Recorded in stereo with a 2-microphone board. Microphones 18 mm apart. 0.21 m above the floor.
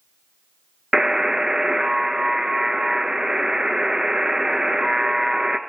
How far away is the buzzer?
About 0.7 m.